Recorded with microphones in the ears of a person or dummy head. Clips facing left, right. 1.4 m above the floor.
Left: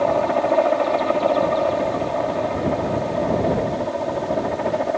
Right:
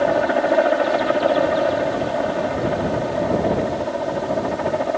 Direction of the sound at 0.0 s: 15° right (ahead or behind).